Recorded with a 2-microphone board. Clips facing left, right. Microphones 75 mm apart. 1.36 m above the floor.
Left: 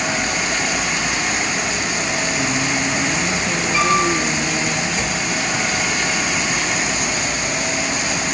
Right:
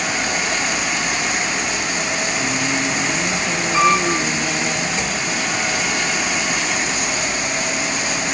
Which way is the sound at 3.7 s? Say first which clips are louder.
Right 2 dB; 40° right (ahead or behind).